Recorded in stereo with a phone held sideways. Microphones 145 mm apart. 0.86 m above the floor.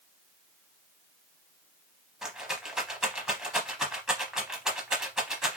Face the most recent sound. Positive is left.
turn(degrees=-5)  # may be behind; listen again after turning